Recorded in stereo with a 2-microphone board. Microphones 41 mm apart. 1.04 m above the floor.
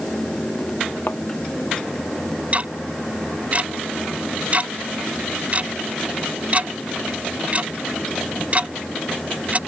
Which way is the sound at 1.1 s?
50° left (ahead or behind).